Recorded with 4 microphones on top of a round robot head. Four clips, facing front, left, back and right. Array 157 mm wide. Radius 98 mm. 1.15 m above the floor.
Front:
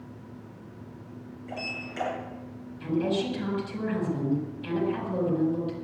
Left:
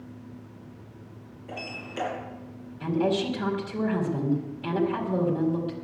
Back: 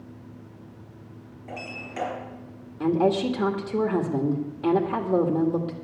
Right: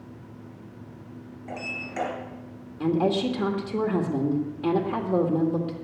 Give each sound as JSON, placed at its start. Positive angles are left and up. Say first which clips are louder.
{"t": 1.5, "sound": "a sliding door", "louder": "right 2 dB, back 1 dB", "azimuth_deg": -120, "distance_m": 5.5}
{"t": 2.8, "sound": "a woman speaking", "louder": "right 2 dB, back 5 dB", "azimuth_deg": -145, "distance_m": 2.0}